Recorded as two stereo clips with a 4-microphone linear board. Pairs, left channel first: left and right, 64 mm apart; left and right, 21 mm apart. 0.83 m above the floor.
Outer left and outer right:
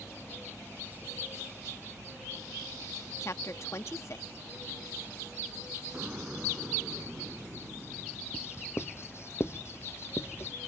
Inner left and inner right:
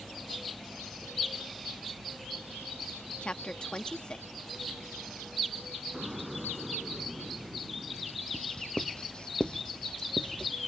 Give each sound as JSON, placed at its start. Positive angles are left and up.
{"t": 3.2, "sound": "a woman speaking", "side_deg": 50}
{"t": 5.9, "sound": "an explosion", "side_deg": -20}
{"t": 8.3, "sound": "writing", "side_deg": 45}